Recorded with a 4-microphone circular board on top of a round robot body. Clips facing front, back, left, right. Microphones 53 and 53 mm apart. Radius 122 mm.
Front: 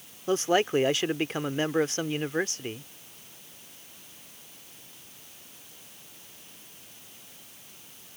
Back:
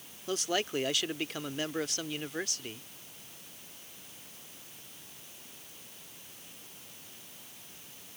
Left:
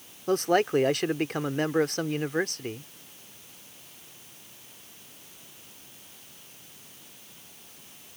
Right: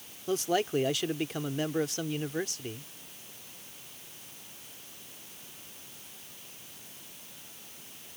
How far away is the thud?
I don't hear a thud.